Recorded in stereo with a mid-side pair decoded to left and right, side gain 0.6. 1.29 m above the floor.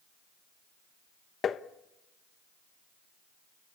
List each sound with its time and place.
1.4 s tapping: 40° left, 1.0 m